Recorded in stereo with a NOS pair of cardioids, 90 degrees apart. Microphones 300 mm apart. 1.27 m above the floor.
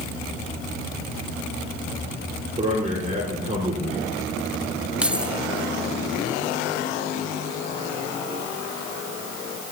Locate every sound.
2.6 s a man speaking: 25° right, 4.5 m
5.0 s keys jangling: 5° right, 1.0 m